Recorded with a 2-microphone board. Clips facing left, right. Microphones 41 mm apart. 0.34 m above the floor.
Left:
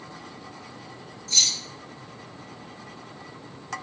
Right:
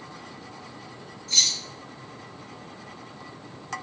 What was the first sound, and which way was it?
Keys jangling, 10° right (ahead or behind).